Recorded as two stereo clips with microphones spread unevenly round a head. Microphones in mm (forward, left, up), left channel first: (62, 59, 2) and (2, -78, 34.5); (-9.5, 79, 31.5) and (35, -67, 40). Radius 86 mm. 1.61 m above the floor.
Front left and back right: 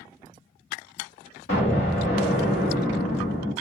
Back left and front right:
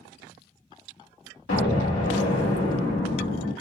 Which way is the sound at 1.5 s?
105° left.